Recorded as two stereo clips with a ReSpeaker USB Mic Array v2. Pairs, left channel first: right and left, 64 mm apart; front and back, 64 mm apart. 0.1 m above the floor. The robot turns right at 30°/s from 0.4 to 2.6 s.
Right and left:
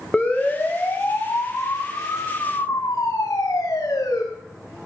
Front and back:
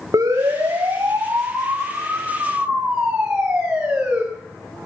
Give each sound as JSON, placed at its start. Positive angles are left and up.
{"t": 0.1, "sound": "a siren", "azimuth_deg": -165, "distance_m": 5.5}